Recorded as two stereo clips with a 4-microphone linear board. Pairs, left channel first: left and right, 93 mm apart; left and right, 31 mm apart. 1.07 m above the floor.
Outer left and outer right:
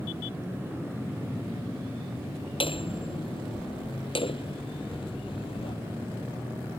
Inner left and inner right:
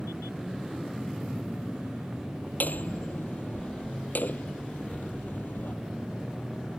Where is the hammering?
70° left (ahead or behind).